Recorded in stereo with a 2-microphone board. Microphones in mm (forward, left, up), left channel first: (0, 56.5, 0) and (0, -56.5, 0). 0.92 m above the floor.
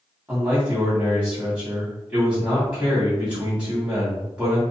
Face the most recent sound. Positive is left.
turn(degrees=-10)  # may be behind; listen again after turning